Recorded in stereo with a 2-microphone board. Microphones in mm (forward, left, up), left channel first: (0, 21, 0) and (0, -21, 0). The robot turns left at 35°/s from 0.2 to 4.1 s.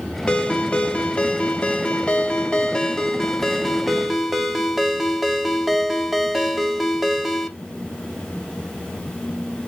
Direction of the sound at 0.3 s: 20° left (ahead or behind).